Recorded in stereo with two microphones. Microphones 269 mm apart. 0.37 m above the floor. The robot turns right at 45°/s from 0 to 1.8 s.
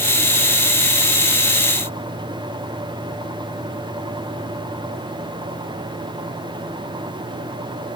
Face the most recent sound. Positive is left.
No sound to turn to.